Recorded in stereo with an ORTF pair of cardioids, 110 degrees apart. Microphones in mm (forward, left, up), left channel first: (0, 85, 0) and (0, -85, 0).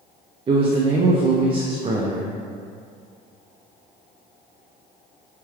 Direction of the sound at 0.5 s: 30° right.